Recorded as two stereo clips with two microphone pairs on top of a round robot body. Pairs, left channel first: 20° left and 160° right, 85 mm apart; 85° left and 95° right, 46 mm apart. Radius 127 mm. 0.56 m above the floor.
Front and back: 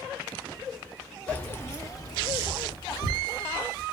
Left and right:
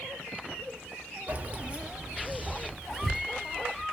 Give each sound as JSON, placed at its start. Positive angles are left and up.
{"t": 1.3, "sound": "keys jangling", "azimuth_deg": -50, "distance_m": 0.7}